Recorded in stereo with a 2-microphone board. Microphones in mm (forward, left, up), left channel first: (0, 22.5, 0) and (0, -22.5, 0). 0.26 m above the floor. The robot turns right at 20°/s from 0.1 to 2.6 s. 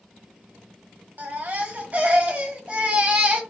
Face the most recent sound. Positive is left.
turn(degrees=-30)  # may be behind; listen again after turning